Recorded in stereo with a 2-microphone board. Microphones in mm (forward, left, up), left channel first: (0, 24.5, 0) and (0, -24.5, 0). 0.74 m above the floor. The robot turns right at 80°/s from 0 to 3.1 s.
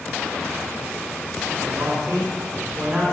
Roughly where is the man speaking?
Behind right.